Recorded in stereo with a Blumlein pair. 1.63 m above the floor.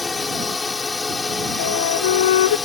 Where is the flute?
60° left.